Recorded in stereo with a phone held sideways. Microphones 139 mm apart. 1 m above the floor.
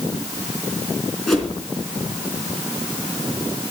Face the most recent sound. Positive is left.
turn(degrees=5)  # may be behind; listen again after turning